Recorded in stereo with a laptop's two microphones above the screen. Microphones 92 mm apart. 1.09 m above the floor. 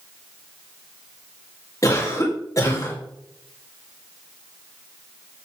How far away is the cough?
About 2.5 m.